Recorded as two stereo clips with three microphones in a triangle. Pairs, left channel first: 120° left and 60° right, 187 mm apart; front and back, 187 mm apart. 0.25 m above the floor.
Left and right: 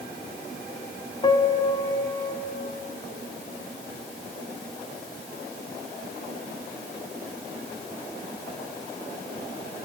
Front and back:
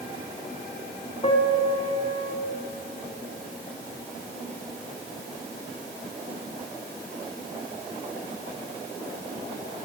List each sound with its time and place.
1.2 s a piano: 55° left, 0.7 m